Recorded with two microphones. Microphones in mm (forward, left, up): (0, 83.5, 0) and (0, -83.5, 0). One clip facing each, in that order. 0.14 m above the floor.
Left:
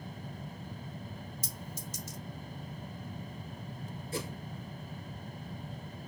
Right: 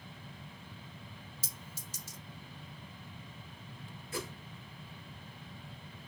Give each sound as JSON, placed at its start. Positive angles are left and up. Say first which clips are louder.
{"t": 1.4, "sound": "a clink", "louder": "left 7 dB", "side_deg": -30, "distance_m": 1.9}
{"t": 4.1, "sound": "a whoosh", "louder": "left 2 dB", "side_deg": 30, "distance_m": 1.6}